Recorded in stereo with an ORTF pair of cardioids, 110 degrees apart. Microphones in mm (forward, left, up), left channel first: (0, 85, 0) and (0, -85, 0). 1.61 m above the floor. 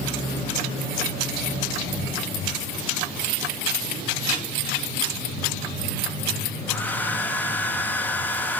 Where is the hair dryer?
10° left, 2 m.